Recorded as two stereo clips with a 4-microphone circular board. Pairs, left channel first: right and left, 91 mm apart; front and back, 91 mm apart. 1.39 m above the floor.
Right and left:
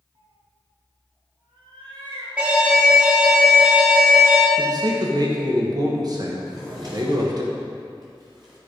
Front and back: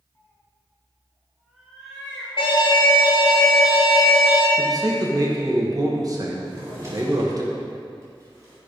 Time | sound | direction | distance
0.1 | a cat meowing | 65° left | 1.9 m
2.4 | an alarm | 15° left | 3 m
4.6 | a man speaking | 135° left | 1.0 m
6.4 | a drawer | 125° left | 3.5 m